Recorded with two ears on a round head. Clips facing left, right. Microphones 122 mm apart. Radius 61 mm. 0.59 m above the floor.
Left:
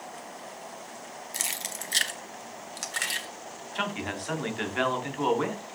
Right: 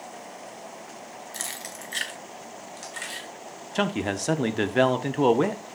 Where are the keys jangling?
15° left (ahead or behind), 1.1 m; by 3.3 s 65° left (ahead or behind), 1.7 m.